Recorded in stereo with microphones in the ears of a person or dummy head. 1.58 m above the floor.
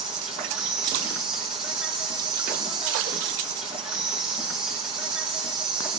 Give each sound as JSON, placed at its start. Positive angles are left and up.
{"t": 0.0, "sound": "an insect", "side_deg": -5, "distance_m": 2.0}